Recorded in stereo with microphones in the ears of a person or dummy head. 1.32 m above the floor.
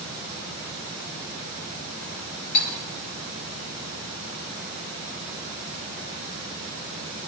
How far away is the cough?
I don't hear a cough.